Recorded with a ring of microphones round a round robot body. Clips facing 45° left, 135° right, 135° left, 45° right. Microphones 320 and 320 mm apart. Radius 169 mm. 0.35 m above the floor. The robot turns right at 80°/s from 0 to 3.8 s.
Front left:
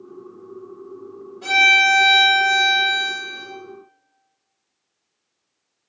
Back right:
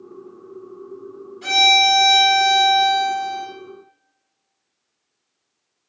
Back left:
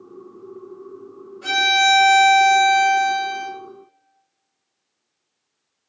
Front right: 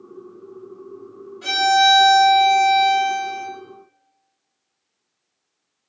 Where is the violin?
85° right, 1.8 m; by 3.5 s 80° left, 1.8 m.